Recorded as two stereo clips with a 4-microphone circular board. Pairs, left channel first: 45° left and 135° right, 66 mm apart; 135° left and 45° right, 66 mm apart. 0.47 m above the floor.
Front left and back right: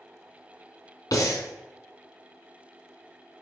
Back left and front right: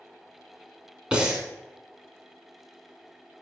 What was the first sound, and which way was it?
Breathing, 30° left.